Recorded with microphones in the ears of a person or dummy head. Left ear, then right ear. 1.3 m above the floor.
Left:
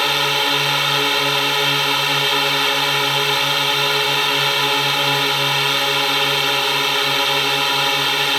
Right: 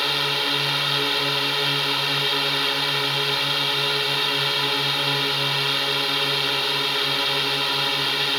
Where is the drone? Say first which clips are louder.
Left 5 dB; 25° left (ahead or behind).